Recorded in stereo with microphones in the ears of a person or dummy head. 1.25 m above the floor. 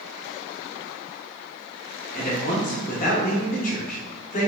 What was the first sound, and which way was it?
A man speaking, 45° left (ahead or behind).